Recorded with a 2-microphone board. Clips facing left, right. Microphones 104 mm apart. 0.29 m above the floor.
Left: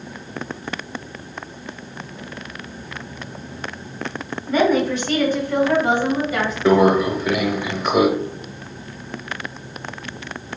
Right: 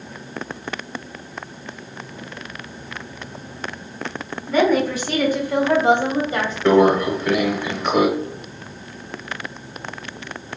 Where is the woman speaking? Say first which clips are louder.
Even; centre (ahead or behind), 1.8 m; by 6.5 s 35° right (ahead or behind), 1.8 m.